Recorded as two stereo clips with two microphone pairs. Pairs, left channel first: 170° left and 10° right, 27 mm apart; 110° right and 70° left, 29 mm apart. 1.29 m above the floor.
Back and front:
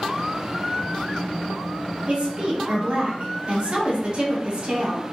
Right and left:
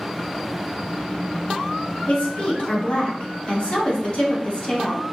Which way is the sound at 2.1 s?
60° right.